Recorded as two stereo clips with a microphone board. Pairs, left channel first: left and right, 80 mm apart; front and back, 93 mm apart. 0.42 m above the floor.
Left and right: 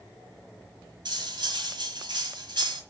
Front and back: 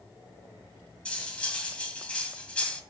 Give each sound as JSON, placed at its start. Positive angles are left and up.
{"t": 1.1, "sound": "cutlery clinking", "azimuth_deg": -75, "distance_m": 1.6}